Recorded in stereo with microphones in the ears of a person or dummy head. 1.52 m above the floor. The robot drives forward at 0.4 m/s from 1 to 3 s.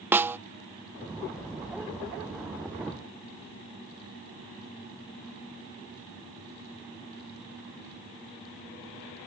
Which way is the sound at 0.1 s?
10° right (ahead or behind).